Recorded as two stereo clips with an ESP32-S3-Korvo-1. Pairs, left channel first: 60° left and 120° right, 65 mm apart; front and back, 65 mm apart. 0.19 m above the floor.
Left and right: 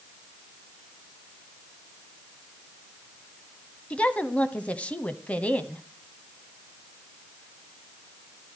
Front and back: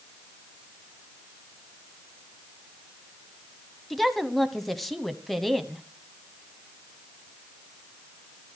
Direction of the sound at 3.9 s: 80° left.